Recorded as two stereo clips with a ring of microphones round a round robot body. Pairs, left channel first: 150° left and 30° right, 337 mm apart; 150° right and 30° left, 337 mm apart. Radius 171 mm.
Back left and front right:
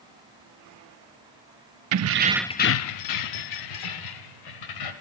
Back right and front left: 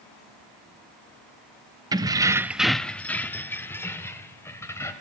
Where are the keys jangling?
45° right, 0.8 m; by 4.9 s 125° left, 3 m.